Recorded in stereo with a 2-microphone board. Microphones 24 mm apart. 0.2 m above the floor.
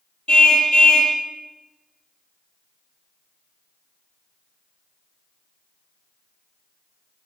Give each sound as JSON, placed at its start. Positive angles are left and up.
{"t": 0.3, "sound": "a car horn", "side_deg": 50, "distance_m": 3.0}